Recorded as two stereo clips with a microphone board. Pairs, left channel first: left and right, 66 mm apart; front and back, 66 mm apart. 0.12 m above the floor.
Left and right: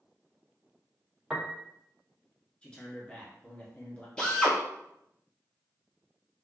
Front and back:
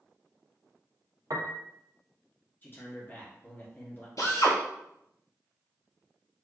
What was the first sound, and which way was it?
A piano, 170° right.